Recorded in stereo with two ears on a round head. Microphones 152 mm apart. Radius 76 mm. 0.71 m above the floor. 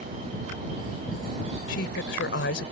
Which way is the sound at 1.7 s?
75° left (ahead or behind).